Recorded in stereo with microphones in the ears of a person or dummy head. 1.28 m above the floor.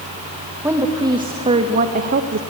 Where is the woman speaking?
20° right (ahead or behind), 1.4 m; by 2.4 s 70° right (ahead or behind), 1.0 m.